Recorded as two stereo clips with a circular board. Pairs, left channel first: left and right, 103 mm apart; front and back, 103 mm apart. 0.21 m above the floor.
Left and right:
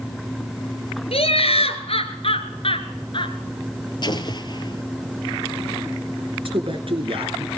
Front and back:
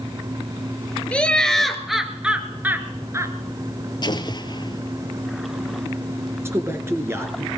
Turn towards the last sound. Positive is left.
turn(degrees=-115)